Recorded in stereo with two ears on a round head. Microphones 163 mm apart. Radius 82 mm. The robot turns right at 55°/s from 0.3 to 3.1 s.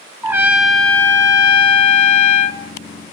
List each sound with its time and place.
0.2 s a trumpet: 20° right, 0.5 m; by 2.6 s 105° left, 0.5 m